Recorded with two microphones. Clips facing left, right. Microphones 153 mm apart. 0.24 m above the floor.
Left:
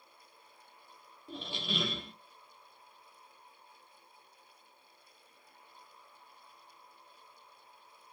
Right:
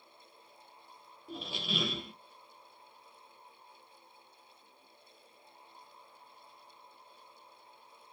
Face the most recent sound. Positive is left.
turn(degrees=-5)  # may be behind; listen again after turning